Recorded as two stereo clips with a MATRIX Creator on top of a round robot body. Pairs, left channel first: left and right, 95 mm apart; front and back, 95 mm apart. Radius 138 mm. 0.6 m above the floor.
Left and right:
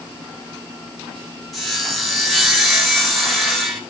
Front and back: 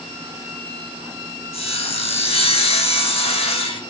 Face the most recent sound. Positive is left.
turn(degrees=0)